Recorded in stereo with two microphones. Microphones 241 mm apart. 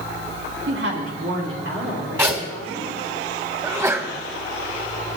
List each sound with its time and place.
0.7 s a woman speaking: 55° right (ahead or behind), 2.5 m; by 2.9 s 60° right (ahead or behind), 4.5 m
2.2 s a zipper: 10° right (ahead or behind), 2.5 m
3.6 s a sneeze: 10° right (ahead or behind), 1.4 m